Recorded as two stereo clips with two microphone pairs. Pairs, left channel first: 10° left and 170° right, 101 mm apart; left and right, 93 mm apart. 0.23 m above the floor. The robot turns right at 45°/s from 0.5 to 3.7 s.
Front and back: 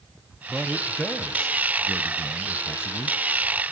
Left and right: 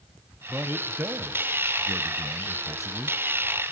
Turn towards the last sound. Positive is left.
turn(degrees=35)